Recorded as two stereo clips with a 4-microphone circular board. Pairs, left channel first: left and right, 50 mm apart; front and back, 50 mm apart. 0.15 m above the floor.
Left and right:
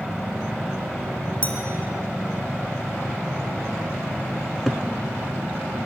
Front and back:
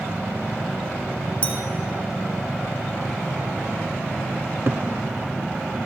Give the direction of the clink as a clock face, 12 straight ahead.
11 o'clock.